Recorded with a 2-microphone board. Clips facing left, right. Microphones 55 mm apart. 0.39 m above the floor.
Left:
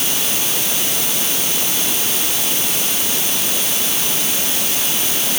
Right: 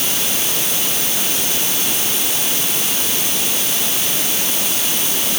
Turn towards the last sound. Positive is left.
No sound to turn to.